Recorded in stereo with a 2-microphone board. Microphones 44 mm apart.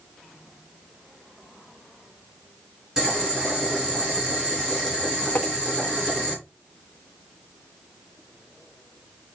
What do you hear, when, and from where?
3.0 s boiling: 15° right (ahead or behind), 5 m
5.3 s tapping: 40° left (ahead or behind), 0.9 m